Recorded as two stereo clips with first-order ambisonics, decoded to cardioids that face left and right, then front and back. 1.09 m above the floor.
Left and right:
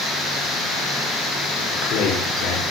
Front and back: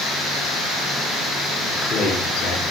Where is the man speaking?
60° left, 3 m.